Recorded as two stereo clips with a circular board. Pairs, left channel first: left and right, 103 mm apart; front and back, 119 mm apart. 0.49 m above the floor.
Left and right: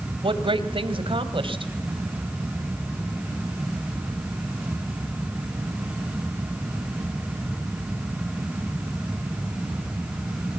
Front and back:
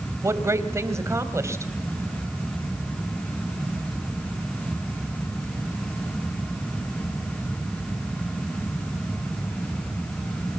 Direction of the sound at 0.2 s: 115° right.